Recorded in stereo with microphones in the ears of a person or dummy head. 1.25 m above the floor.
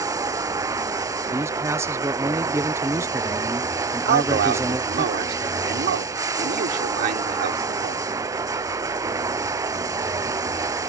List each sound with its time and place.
0.0 s running water: 20° right (ahead or behind)
1.3 s a man speaking: 15° right (ahead or behind)
4.0 s a man speaking: 55° right (ahead or behind)